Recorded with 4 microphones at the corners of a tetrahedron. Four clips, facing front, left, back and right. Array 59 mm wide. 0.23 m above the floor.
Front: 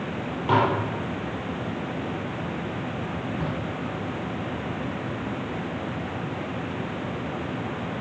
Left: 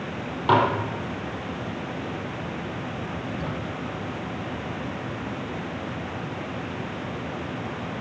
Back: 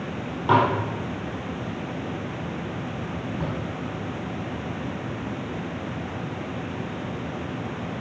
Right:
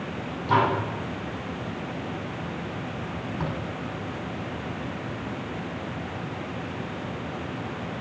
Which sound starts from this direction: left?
Dishes clattering, at 0.5 s.